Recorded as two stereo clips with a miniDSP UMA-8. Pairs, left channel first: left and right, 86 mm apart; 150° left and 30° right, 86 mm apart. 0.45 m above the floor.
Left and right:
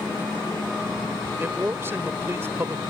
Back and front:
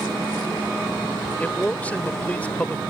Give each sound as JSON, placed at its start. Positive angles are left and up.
{"t": 1.4, "sound": "a man speaking", "azimuth_deg": -140}